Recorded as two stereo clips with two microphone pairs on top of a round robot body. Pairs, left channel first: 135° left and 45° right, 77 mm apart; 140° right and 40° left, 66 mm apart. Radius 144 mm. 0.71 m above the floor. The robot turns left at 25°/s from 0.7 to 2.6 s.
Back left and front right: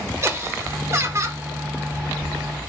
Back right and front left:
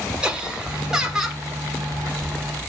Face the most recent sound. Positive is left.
turn(degrees=-65)